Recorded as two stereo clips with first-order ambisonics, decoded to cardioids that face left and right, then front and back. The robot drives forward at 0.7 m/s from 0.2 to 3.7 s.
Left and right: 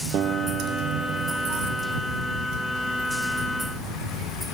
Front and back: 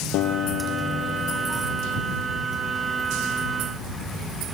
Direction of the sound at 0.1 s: 35° right.